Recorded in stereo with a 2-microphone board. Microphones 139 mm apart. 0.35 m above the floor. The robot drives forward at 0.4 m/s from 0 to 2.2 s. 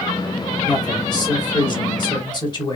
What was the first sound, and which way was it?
A man speaking, 30° left (ahead or behind).